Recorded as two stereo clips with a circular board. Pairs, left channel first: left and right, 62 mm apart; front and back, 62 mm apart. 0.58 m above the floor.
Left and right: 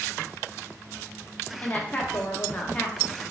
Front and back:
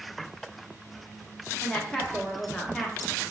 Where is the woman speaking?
75° left, 0.6 m.